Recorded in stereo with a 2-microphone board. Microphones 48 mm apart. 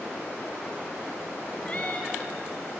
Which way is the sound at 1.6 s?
30° left (ahead or behind).